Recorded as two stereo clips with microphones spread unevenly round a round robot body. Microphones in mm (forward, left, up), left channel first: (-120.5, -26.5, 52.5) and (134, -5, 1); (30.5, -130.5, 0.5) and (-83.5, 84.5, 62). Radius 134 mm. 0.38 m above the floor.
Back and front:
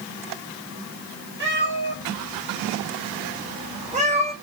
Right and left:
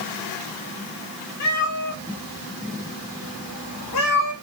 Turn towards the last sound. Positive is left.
turn(degrees=-65)